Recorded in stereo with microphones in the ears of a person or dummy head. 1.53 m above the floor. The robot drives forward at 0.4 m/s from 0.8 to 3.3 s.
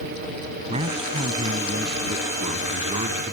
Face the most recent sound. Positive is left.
turn(degrees=-30)  # may be behind; listen again after turning